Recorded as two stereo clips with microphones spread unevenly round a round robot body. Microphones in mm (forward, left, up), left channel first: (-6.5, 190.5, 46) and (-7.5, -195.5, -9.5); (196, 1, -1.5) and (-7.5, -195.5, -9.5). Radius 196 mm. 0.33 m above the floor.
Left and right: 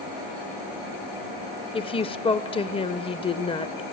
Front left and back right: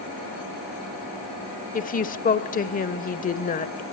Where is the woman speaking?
10° left, 1.2 m.